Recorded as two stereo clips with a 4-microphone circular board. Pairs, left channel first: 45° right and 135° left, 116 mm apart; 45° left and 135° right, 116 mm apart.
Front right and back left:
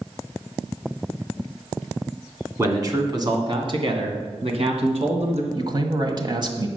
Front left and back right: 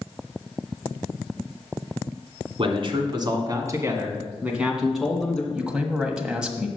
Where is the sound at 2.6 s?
165° right, 1.9 m; by 5.4 s 125° left, 2 m.